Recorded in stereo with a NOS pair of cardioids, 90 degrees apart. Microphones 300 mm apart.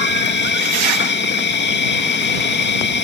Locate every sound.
0.0 s an insect: 40° left